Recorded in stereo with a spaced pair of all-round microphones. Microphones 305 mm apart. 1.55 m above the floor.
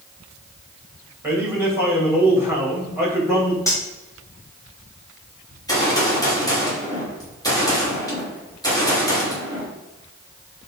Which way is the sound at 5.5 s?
10° left (ahead or behind).